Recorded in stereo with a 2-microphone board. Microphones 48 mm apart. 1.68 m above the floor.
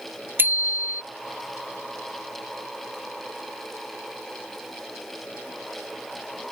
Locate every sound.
0.4 s a bicycle bell: 45° right (ahead or behind)